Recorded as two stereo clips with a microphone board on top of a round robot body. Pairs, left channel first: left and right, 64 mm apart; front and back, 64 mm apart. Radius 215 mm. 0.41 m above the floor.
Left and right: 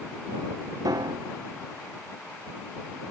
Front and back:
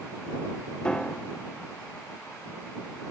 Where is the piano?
75° right.